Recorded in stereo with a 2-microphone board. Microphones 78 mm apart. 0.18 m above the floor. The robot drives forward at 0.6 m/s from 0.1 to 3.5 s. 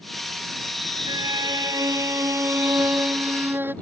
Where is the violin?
70° right (ahead or behind); by 3.7 s 25° right (ahead or behind).